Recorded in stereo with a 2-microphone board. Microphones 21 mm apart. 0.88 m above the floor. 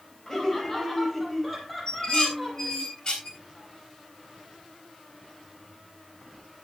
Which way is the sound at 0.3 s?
20° left (ahead or behind).